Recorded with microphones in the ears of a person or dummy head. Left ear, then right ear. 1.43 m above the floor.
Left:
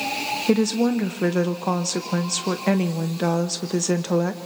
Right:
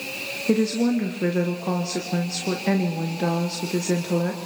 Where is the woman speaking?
35° left (ahead or behind), 1.0 m.